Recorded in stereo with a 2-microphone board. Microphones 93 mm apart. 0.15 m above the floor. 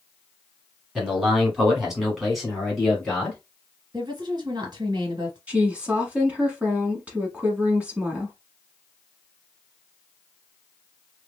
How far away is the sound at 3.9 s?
About 2.0 m.